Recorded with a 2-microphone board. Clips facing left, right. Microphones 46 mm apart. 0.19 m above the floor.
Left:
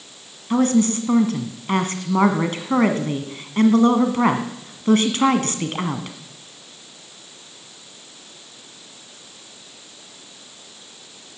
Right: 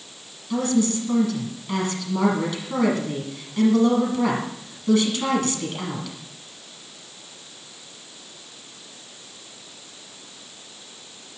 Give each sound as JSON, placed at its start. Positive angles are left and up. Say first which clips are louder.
{"t": 0.5, "sound": "a woman speaking", "louder": "left 4 dB", "side_deg": 40, "distance_m": 1.5}